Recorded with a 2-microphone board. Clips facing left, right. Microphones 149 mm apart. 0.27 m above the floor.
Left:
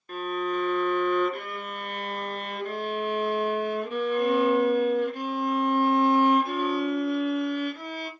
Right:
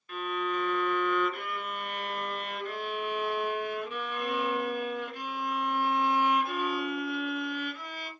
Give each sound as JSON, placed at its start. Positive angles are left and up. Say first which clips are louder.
{"t": 0.1, "sound": "a violin", "louder": "left 4 dB", "side_deg": 45, "distance_m": 1.3}